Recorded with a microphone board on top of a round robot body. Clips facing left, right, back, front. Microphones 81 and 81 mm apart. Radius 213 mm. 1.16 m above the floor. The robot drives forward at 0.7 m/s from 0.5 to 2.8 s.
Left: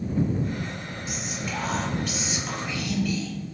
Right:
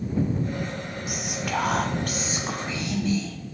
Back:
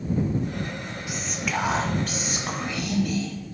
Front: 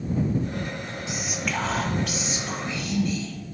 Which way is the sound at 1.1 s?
65° right.